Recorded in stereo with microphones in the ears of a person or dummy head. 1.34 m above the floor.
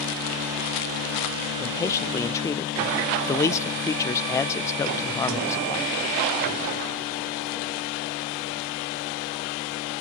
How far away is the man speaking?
About 0.6 m.